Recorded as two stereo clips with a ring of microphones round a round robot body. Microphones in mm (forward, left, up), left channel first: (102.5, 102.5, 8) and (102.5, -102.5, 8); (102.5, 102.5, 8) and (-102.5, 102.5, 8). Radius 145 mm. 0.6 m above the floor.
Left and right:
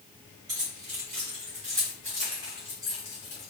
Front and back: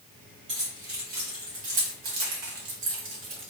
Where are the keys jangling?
125° right, 2.5 m; by 3.5 s 160° left, 1.4 m.